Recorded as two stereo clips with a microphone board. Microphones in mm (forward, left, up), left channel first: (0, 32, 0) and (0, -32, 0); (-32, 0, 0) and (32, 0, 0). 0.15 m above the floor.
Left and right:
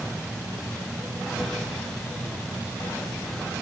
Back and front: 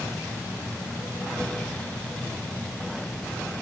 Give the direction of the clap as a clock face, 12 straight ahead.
I don't hear a clap.